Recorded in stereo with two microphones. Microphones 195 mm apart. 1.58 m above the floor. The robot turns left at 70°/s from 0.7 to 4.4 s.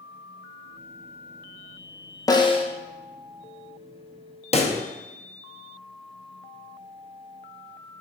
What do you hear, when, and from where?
2.3 s a snare drum: 20° left (ahead or behind), 0.8 m; by 2.7 s 30° left (ahead or behind), 0.8 m
4.5 s a pop: 30° left (ahead or behind), 0.8 m